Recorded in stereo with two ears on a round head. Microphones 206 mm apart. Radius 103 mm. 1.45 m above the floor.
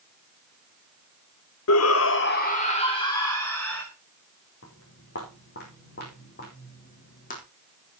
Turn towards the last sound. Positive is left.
turn(degrees=35)  # may be behind; listen again after turning